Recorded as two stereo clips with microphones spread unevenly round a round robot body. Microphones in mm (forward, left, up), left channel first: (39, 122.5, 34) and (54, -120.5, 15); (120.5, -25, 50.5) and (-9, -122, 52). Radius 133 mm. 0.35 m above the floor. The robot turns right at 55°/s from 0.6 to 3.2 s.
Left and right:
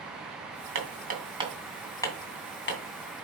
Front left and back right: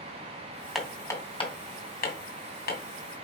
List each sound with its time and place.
0.8 s hammering: 55° right, 2.5 m; by 2.8 s 60° left, 2.5 m